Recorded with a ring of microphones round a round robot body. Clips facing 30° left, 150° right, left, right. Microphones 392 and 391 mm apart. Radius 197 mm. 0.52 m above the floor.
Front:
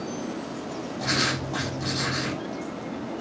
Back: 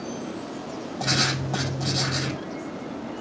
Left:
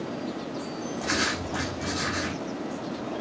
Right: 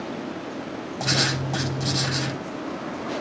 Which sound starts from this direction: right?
Writing, at 1.0 s.